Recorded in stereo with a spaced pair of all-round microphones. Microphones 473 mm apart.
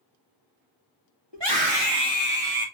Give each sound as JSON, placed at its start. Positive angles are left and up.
{"t": 1.3, "sound": "a scream", "side_deg": -60, "distance_m": 1.8}